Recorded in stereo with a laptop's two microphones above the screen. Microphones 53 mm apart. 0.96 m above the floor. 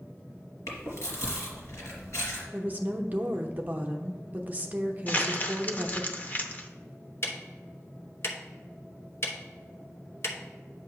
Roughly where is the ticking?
Left.